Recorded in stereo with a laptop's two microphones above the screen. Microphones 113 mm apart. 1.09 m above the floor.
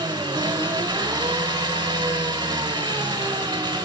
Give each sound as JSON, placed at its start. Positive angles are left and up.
{"t": 0.0, "sound": "an engine running", "side_deg": -40, "distance_m": 1.1}